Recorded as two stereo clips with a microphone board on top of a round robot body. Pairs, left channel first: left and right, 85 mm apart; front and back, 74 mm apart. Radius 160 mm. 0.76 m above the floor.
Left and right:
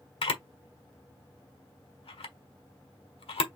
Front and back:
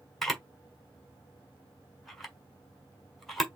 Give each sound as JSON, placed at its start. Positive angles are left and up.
{"t": 0.2, "sound": "a camera shutter", "azimuth_deg": 85, "distance_m": 1.3}